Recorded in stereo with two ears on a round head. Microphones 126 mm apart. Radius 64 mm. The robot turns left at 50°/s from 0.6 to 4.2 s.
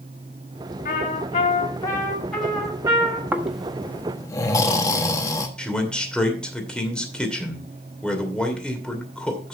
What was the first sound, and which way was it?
A trumpet, 80° left.